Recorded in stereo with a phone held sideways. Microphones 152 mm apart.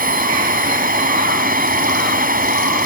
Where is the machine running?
70° right (ahead or behind).